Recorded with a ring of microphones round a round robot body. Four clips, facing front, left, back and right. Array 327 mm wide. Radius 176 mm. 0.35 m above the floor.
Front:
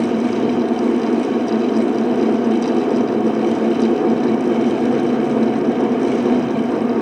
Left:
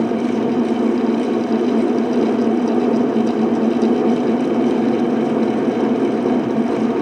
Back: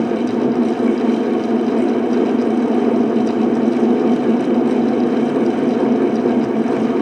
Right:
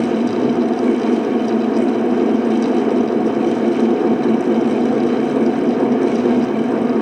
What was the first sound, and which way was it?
Only background noise.